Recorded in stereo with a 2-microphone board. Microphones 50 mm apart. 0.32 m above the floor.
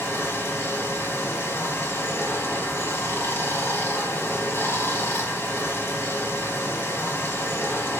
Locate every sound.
0.0 s running water: 60° left (ahead or behind), 1.1 m